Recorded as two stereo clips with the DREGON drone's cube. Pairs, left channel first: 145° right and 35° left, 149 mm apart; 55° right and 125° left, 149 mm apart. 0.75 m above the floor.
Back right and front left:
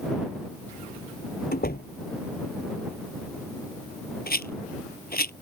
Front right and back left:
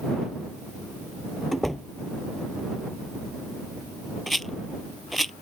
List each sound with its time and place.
1.5 s a door slam: 145° right
4.3 s a rattle: 145° right